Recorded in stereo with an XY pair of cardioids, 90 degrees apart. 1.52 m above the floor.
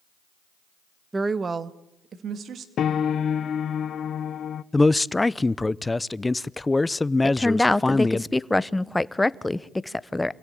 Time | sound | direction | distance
1.1 | a woman speaking | 20° right | 1.3 m
2.8 | a piano | 65° left | 0.9 m
4.7 | a man speaking | 20° left | 0.7 m
7.2 | a woman speaking | 15° left | 0.9 m